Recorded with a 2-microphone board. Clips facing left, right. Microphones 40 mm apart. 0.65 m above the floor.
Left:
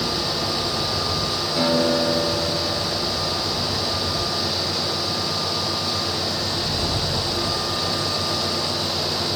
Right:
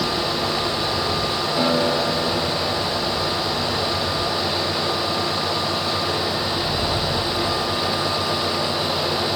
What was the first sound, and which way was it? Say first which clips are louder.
A guitar: left 1 dB; 10° left (ahead or behind).